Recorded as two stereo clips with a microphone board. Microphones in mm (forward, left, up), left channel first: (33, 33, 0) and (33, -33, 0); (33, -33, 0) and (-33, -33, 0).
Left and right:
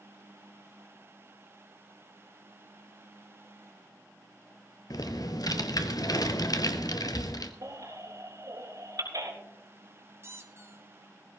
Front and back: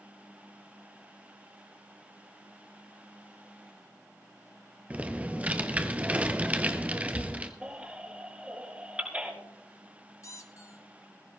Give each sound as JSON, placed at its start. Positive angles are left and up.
{"t": 4.9, "sound": "typing on a keyboard", "azimuth_deg": 110, "distance_m": 1.1}
{"t": 7.6, "sound": "a baby crying", "azimuth_deg": -110, "distance_m": 4.0}
{"t": 10.2, "sound": "a squeak", "azimuth_deg": -40, "distance_m": 1.5}